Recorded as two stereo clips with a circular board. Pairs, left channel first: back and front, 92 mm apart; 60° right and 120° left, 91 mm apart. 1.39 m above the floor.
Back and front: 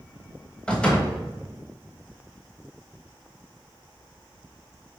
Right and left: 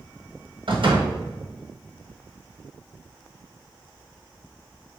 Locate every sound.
0.7 s a door slam: 100° left, 1.3 m